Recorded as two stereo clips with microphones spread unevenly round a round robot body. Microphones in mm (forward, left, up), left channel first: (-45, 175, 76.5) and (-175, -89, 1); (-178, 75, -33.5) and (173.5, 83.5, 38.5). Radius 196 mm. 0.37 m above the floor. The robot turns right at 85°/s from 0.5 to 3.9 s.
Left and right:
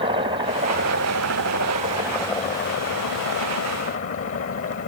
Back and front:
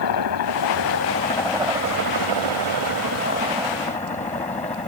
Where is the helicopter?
170° right; by 4.9 s 105° left.